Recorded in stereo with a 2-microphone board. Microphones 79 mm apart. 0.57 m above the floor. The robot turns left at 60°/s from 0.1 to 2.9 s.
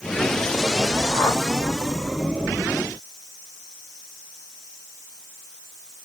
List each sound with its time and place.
1.1 s a whoosh: 20° left (ahead or behind), 2 m; by 1.4 s 35° left (ahead or behind), 2 m